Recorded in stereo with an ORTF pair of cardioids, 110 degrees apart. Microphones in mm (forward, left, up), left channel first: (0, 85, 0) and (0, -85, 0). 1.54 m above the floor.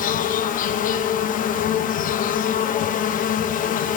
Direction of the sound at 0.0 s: 55° left.